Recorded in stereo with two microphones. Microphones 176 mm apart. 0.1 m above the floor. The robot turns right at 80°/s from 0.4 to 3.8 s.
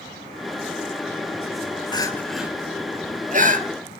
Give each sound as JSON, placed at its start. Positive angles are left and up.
{"t": 1.9, "sound": "crying", "side_deg": 25, "distance_m": 1.3}